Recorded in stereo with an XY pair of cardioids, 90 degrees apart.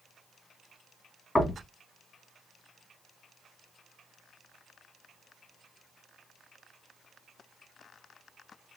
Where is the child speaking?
I don't hear a child speaking.